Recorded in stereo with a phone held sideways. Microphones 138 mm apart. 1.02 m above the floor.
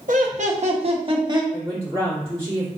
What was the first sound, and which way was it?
Laughter, 70° right (ahead or behind).